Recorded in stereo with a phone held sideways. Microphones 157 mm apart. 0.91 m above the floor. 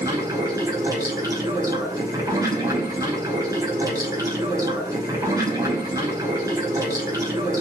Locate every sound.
0.0 s running water: 20° right (ahead or behind), 6 m